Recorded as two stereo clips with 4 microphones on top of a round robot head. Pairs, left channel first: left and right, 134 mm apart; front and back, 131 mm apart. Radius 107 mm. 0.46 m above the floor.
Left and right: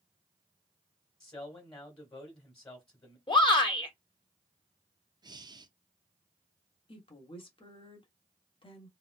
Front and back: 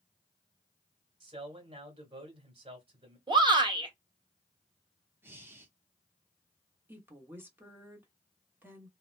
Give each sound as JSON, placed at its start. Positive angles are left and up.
{"t": 1.2, "sound": "a man speaking", "azimuth_deg": 140, "distance_m": 1.8}
{"t": 3.3, "sound": "a shout", "azimuth_deg": 135, "distance_m": 1.4}
{"t": 5.2, "sound": "breathing", "azimuth_deg": -120, "distance_m": 0.7}
{"t": 6.9, "sound": "a woman speaking", "azimuth_deg": 110, "distance_m": 1.1}